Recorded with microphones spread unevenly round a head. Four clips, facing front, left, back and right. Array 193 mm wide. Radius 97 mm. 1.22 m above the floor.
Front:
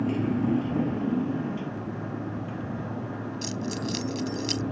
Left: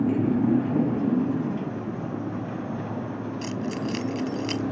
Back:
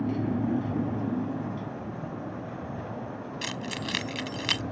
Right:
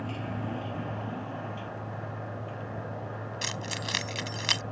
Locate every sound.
0.0 s a motorcycle: 90° left; by 4.7 s 75° left
3.4 s keys jangling: 115° right